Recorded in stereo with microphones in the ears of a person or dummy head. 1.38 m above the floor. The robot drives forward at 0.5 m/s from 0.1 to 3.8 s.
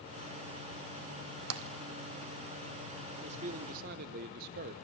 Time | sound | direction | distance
1.5 | tapping | 70° right (ahead or behind) | 1.1 m
3.2 | a man speaking | 35° right (ahead or behind) | 0.9 m